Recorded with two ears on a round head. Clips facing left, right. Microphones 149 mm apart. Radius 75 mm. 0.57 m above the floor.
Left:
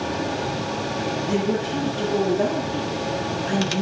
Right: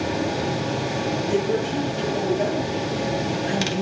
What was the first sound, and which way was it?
A woman speaking, 55° left (ahead or behind).